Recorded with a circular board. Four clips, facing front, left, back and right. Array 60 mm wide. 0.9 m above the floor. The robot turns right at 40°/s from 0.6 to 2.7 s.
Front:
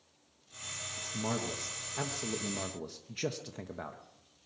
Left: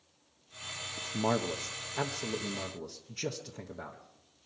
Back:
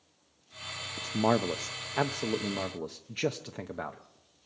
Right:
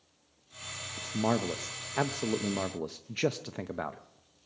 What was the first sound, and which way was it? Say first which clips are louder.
A man speaking: right 1 dB, back 9 dB; straight behind.